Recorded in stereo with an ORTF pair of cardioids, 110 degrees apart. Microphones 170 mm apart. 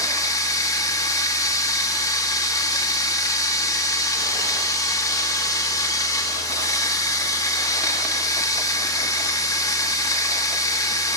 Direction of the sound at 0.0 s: 20° left.